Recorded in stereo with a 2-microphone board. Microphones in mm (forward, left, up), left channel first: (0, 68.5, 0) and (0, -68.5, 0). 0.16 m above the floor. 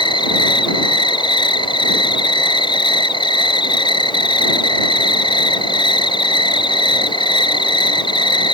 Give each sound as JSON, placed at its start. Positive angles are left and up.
{"t": 0.0, "sound": "an insect", "side_deg": 35}